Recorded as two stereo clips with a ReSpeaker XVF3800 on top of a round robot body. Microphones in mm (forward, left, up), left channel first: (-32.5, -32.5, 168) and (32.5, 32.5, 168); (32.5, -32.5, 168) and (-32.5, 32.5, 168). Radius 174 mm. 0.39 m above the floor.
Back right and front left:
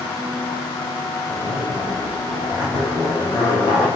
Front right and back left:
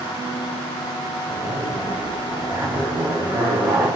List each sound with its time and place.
1.3 s a zipper: 160° right, 5 m